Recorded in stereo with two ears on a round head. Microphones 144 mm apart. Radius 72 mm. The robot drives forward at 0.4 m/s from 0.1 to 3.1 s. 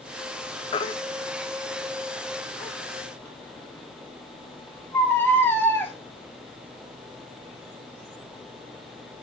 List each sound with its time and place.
0.7 s a baby crying: 30° left (ahead or behind), 0.5 m; by 5.9 s 10° left (ahead or behind), 1.4 m